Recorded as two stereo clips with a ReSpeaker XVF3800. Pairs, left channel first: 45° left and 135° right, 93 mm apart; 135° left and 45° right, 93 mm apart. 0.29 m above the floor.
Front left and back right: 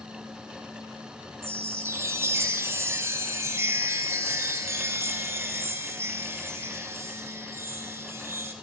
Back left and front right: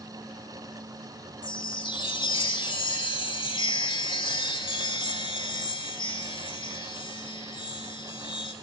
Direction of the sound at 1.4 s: 165° left.